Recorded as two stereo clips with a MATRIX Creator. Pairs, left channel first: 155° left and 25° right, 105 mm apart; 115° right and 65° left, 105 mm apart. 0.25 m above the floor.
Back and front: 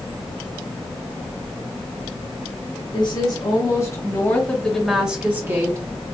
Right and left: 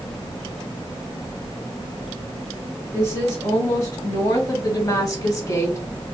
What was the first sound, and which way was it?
A woman speaking, 170° right.